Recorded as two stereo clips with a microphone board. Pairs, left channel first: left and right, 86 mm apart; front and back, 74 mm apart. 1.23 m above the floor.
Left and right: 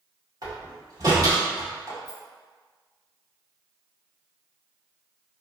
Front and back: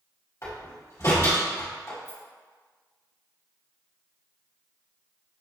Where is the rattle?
50° right, 1.8 m.